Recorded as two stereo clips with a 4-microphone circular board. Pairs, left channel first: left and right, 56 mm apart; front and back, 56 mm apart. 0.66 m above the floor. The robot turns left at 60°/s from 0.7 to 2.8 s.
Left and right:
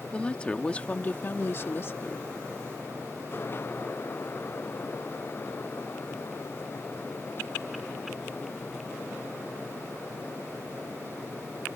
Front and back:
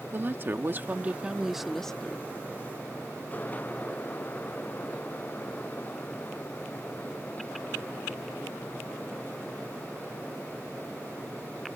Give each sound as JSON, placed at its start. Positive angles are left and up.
{"t": 0.1, "sound": "a woman speaking", "azimuth_deg": 150}